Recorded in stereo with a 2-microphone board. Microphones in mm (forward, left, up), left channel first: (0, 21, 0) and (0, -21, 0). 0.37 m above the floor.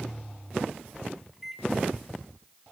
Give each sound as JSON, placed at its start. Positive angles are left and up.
{"t": 1.3, "sound": "a microwave", "side_deg": -10, "distance_m": 2.0}